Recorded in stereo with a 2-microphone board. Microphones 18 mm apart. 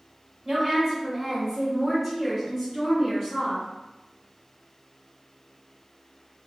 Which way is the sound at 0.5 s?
20° right (ahead or behind).